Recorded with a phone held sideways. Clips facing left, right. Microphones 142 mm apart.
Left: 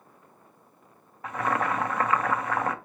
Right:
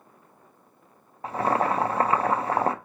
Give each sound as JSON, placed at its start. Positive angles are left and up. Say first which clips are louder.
{"t": 1.2, "sound": "boiling", "louder": "right 4 dB", "side_deg": -30, "distance_m": 0.5}